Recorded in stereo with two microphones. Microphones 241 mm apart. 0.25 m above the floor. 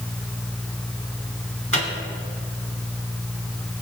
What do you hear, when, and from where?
1.7 s a microwave: 60° right (ahead or behind), 1.9 m